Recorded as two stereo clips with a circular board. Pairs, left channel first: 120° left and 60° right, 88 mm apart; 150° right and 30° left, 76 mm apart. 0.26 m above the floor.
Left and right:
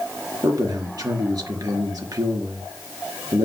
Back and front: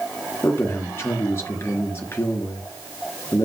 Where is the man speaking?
95° right, 4 m.